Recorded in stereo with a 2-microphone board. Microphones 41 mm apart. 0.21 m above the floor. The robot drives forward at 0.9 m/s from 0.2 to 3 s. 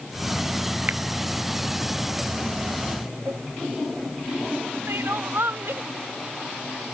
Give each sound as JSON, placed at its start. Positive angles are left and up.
{"t": 0.9, "sound": "a finger snap", "side_deg": -45}
{"t": 3.3, "sound": "a cowbell", "side_deg": -70}
{"t": 4.9, "sound": "crying", "side_deg": -70}